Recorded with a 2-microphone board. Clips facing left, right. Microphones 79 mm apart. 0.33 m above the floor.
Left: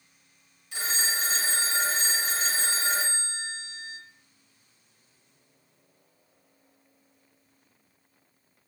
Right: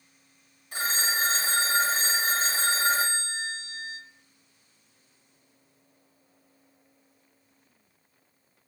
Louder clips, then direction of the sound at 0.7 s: Right 3 dB; 45° right (ahead or behind).